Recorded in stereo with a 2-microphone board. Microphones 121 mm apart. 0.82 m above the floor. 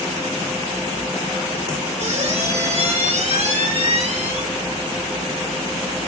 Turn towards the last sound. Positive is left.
turn(degrees=-65)  # may be behind; listen again after turning